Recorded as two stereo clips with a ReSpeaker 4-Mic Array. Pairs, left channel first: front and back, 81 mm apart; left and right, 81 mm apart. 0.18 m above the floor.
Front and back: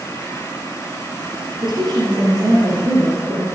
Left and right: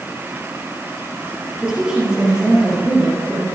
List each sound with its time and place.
1.6 s a woman speaking: 170° right, 4 m